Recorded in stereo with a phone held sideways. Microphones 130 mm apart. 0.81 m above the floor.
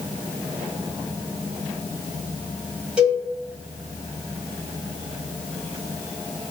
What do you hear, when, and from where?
3.0 s a cowbell: 5° right (ahead or behind), 1.3 m